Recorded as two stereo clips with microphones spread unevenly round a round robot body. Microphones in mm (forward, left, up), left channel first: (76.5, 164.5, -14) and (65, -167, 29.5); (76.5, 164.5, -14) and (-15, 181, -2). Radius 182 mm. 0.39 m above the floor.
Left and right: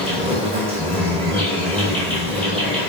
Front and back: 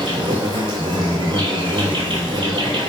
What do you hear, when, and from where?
0.0 s an insect: straight behind, 0.7 m